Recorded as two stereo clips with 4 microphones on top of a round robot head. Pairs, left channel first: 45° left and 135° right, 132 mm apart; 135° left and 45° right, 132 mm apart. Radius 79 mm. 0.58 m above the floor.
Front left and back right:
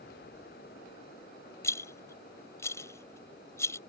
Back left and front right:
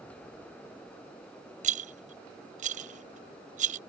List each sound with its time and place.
1.6 s a rattle: 20° right